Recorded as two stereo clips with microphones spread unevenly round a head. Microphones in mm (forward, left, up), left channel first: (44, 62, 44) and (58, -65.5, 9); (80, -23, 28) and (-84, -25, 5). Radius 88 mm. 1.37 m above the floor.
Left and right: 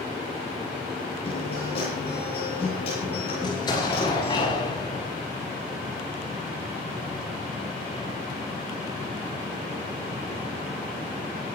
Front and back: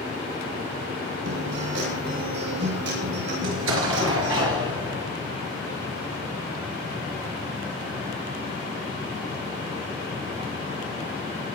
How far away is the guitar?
About 10 m.